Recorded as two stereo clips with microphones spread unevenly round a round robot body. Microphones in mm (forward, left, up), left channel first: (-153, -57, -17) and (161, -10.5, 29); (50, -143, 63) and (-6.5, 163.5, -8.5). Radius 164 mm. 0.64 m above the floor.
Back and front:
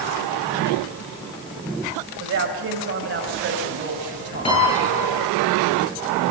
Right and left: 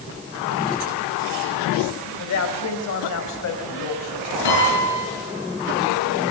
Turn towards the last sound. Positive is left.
turn(degrees=-100)